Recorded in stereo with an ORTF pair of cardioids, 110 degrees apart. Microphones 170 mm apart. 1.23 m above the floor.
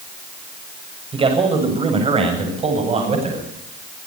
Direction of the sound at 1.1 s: 30° right.